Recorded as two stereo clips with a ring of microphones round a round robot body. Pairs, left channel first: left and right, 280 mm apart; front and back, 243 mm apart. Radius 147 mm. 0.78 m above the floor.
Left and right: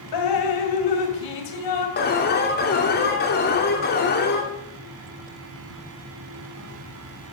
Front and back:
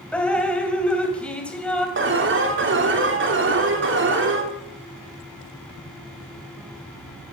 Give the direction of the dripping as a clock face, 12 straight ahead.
9 o'clock.